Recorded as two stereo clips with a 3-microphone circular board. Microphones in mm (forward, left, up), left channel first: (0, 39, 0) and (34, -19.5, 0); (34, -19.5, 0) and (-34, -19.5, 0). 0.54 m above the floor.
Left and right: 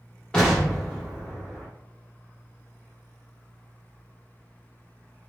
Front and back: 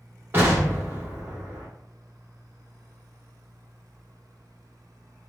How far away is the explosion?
About 1.4 m.